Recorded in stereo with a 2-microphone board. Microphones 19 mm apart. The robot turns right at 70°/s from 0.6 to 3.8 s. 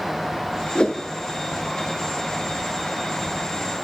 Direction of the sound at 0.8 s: 60° left (ahead or behind).